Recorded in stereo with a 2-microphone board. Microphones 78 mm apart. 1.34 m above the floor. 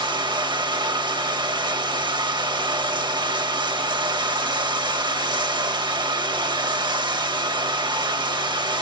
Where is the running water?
80° right, 1.4 m.